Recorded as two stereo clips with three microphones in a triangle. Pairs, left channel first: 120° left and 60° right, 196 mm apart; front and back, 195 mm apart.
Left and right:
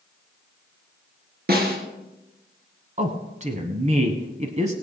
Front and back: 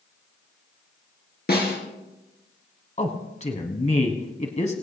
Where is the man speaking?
30° right, 1.3 m.